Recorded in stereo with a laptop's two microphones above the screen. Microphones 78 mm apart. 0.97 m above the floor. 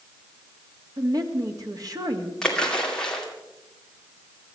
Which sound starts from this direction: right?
A woman speaking, at 1.0 s.